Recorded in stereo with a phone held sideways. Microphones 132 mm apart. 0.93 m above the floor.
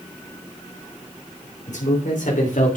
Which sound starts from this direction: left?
A man speaking, at 1.7 s.